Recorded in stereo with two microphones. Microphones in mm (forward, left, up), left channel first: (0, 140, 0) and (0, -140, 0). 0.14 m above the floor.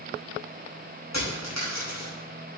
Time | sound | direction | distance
1.1 | a dropped coin | 65° left (ahead or behind) | 6 m